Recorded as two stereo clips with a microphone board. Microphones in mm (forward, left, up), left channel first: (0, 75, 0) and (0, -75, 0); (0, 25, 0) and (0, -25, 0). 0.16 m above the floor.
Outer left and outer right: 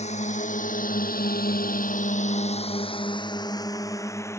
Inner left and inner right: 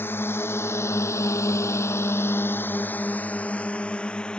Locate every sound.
0.0 s a drone: 50° left (ahead or behind); by 4.4 s 15° left (ahead or behind)